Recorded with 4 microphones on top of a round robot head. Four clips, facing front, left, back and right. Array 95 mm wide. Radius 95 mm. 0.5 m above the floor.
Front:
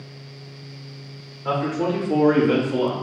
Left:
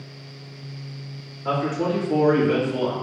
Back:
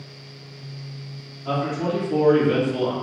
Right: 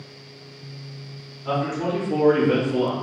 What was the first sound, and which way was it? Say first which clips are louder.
A man speaking: left 1 dB, front 2 dB; 40° left.